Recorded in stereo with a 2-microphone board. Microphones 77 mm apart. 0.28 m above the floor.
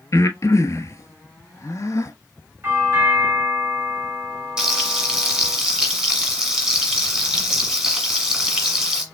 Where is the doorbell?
35° right (ahead or behind), 4 m.